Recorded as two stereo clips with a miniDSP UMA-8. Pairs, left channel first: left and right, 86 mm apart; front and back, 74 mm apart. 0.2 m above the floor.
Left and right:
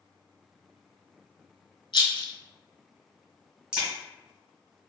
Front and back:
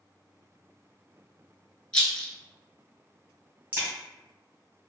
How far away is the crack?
About 1.7 m.